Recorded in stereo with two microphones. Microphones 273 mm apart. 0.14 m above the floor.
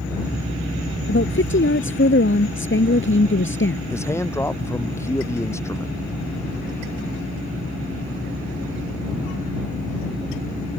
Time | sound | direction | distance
1.1 | a woman speaking | 45° left (ahead or behind) | ?
3.9 | a man speaking | 10° left (ahead or behind) | ?